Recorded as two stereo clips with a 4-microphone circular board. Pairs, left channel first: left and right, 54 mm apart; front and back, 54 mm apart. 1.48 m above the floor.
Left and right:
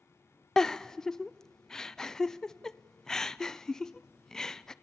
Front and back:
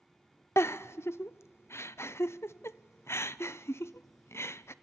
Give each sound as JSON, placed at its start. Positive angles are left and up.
{"t": 0.6, "sound": "a giggle", "azimuth_deg": 10, "distance_m": 0.6}